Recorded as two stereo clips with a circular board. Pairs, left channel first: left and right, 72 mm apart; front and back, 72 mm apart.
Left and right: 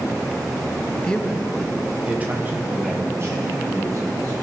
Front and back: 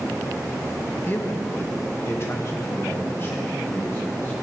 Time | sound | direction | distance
1.0 | a man speaking | 30° left | 0.9 m